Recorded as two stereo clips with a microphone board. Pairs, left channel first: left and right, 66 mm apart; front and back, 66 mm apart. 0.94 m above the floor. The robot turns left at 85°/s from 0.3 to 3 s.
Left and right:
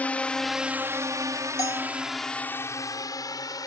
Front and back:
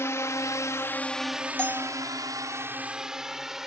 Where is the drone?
30° left; by 3.7 s 95° left.